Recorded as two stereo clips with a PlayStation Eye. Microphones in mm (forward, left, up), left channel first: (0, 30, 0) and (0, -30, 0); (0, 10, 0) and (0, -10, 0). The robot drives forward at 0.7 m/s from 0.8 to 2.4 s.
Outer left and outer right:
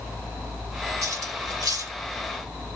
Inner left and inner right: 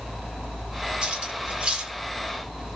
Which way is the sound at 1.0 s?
75° right (ahead or behind).